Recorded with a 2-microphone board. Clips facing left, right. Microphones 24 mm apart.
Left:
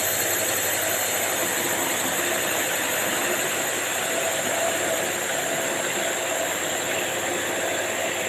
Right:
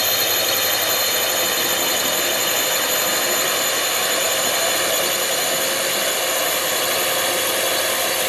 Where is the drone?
50° right (ahead or behind); by 8.3 s 65° right (ahead or behind).